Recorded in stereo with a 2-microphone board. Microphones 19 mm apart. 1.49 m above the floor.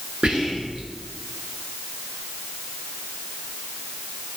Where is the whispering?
45° right (ahead or behind), 0.7 m.